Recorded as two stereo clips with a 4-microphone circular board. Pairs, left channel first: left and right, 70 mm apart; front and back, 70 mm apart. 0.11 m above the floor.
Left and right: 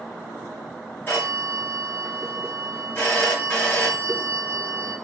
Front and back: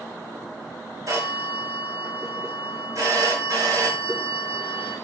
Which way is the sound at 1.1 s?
145° left.